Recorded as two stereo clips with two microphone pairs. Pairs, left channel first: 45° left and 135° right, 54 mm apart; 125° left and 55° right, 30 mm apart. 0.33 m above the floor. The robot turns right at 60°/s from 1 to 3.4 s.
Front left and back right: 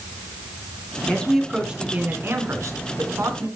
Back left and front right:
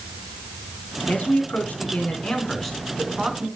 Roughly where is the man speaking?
Behind left.